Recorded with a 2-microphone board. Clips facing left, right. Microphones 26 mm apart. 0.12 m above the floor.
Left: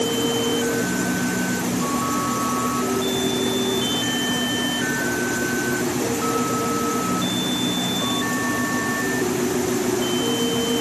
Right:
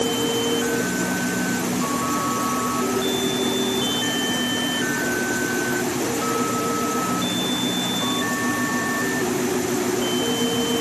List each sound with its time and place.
Only background noise.